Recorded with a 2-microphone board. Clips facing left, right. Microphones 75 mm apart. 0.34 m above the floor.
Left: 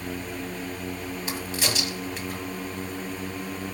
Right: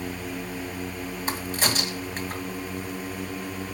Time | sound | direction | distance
1.3 | a crack | 40° right (ahead or behind) | 2 m